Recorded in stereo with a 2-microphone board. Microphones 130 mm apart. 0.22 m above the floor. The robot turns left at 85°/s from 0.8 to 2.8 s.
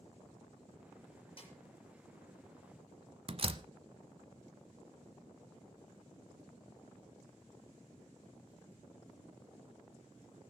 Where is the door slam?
45° right (ahead or behind), 0.9 m.